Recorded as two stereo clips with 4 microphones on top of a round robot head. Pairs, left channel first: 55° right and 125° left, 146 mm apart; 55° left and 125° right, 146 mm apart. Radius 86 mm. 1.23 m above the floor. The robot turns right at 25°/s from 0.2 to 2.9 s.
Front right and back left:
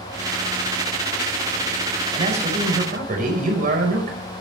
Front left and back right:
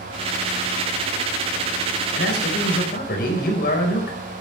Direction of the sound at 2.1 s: 65° left.